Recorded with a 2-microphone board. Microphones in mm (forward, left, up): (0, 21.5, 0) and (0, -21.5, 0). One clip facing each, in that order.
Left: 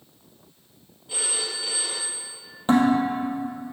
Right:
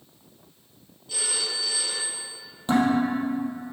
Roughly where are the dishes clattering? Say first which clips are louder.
Left 2 dB; left.